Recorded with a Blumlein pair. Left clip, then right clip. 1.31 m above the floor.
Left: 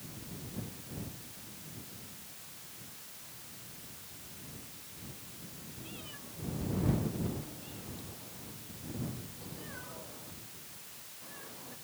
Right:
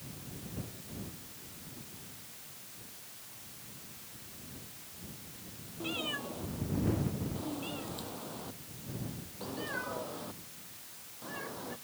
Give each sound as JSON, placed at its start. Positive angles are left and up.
{"t": 5.8, "sound": "a cat meowing", "azimuth_deg": -55}